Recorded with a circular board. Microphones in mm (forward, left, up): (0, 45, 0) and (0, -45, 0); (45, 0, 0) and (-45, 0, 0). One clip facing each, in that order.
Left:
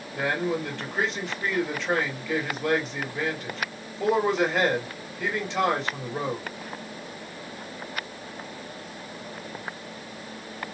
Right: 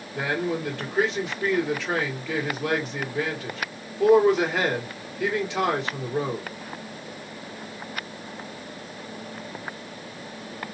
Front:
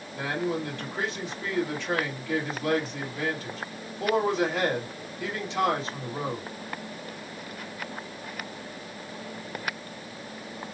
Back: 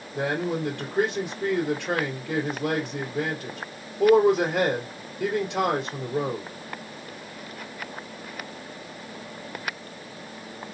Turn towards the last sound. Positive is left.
turn(degrees=-175)